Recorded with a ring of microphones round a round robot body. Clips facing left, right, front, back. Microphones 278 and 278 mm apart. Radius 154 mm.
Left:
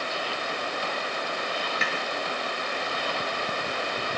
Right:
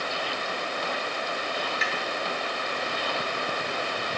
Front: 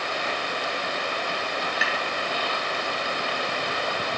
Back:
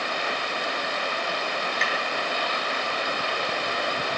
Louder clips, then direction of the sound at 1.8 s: Left 1 dB, even; 80° left.